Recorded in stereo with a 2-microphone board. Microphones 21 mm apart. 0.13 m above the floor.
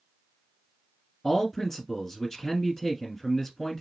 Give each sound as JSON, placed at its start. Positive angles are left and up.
{"t": 1.2, "sound": "a man speaking", "side_deg": 10, "distance_m": 1.3}